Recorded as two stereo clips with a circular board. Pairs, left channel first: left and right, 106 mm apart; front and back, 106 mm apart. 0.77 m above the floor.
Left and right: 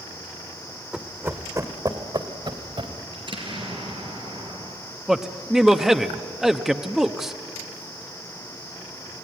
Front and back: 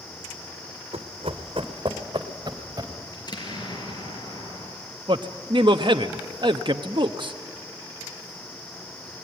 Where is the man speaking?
175° right, 0.9 m.